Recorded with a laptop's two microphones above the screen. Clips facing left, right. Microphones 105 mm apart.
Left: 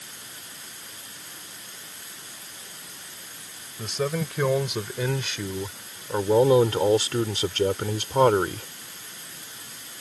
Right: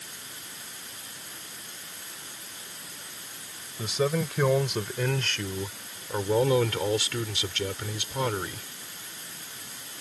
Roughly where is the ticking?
I don't hear ticking.